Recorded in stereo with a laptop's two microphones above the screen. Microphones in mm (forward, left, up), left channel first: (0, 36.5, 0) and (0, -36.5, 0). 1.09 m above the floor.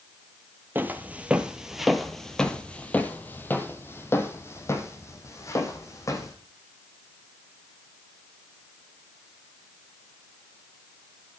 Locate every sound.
0.8 s footsteps: 30° right (ahead or behind), 1.2 m; by 6.3 s 45° left (ahead or behind), 2.5 m